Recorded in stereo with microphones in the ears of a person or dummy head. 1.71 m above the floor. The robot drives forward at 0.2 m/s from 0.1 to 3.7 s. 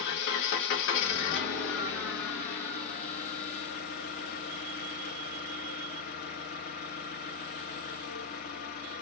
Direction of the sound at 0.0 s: 60° left (ahead or behind).